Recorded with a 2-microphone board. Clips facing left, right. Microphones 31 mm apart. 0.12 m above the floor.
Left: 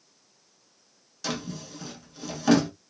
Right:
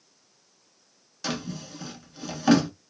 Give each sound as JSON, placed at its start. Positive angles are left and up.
{"t": 1.2, "sound": "a drawer", "side_deg": -15, "distance_m": 0.9}